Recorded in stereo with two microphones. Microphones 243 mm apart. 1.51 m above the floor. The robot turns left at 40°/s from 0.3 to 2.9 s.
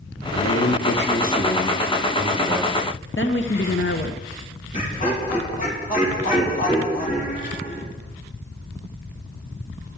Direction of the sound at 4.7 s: 30° left (ahead or behind).